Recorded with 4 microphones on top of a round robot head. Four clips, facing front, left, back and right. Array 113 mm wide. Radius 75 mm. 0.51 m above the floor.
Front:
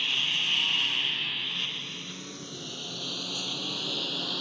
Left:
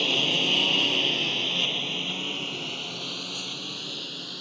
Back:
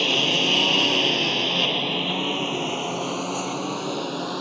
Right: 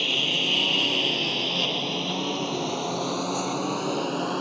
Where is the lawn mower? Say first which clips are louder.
Left 1 dB, back 13 dB; 170° left; by 4.4 s 125° right.